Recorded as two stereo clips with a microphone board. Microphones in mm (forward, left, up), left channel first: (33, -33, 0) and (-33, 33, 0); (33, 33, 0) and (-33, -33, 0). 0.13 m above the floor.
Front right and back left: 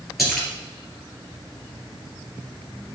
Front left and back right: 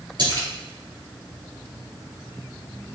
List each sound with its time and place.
0.2 s a splash: 135° right, 2 m